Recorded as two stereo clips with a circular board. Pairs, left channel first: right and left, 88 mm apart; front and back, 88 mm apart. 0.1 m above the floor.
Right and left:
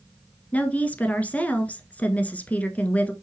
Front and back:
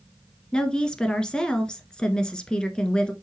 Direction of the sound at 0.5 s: 60° right.